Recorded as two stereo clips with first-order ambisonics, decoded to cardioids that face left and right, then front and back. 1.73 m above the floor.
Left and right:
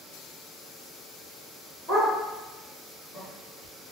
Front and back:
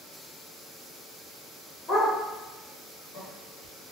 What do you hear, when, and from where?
1.9 s a dog barking: 55° right, 1.8 m; by 3.9 s 60° left, 1.4 m